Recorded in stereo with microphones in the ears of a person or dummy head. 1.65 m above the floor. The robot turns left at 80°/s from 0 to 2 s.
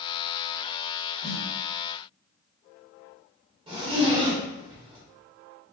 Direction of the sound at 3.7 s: 25° right (ahead or behind).